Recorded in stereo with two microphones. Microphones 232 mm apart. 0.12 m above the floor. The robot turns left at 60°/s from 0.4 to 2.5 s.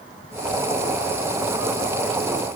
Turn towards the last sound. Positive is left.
No sound to turn to.